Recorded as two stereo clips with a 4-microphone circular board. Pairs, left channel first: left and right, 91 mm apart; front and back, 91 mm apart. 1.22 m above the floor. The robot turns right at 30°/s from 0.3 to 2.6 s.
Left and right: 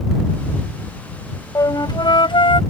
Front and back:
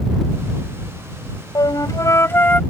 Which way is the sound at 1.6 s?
40° left.